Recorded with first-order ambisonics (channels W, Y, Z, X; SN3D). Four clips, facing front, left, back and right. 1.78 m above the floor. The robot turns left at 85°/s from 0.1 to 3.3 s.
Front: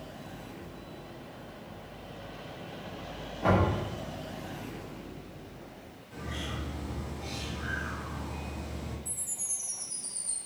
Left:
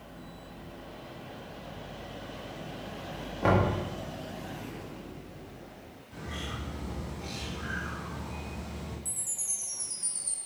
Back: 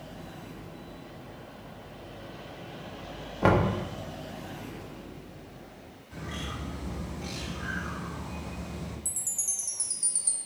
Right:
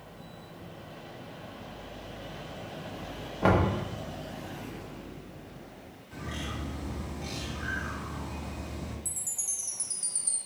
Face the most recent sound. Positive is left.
turn(degrees=-160)